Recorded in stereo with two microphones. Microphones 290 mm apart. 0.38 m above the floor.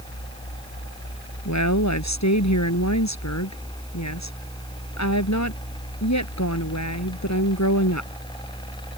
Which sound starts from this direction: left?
A woman speaking, at 1.4 s.